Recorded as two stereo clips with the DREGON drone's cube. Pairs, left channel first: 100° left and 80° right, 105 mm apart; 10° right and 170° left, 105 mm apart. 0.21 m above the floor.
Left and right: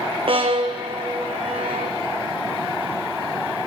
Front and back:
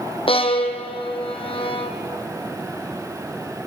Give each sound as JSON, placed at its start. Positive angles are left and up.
{"t": 0.3, "sound": "a violin", "azimuth_deg": -45, "distance_m": 1.9}